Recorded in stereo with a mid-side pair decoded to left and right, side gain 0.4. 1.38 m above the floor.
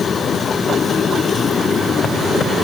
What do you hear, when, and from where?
Only background noise.